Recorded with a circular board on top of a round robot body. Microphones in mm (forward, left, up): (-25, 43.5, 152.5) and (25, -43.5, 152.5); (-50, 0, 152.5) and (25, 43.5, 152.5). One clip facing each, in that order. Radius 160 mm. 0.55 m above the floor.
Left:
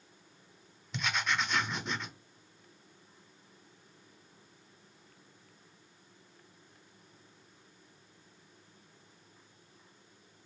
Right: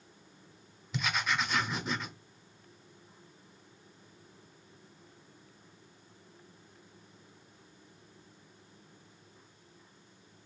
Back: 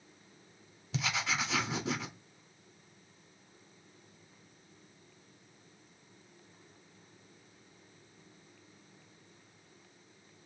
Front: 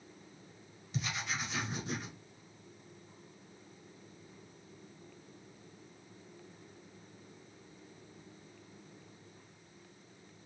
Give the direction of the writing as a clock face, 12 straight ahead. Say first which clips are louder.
Right 1 dB, back 4 dB; 5 o'clock.